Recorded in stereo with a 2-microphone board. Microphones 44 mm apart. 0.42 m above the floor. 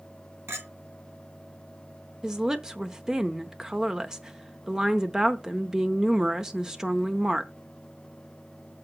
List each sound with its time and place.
0.5 s a clink: 70° right (ahead or behind), 2.5 m
2.2 s a woman speaking: 15° right (ahead or behind), 0.8 m